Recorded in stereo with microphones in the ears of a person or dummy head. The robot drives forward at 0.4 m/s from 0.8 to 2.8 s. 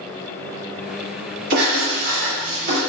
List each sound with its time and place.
1.5 s writing: 55° right (ahead or behind), 1.7 m